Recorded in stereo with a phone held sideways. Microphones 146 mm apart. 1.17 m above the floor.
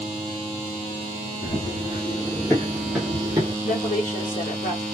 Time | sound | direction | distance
1.4 | running footsteps | 45° left (ahead or behind) | 1.6 m
3.6 | a woman speaking | 65° left (ahead or behind) | 1.2 m